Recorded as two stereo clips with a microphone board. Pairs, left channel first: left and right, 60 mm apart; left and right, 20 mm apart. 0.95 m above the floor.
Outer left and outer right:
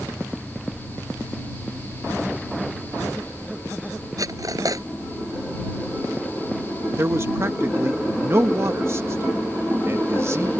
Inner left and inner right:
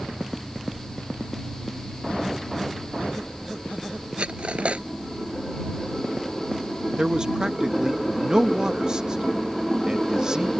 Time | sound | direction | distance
4.2 | cutlery clinking | 65° right (ahead or behind) | ?
7.0 | a man speaking | 45° right (ahead or behind) | ?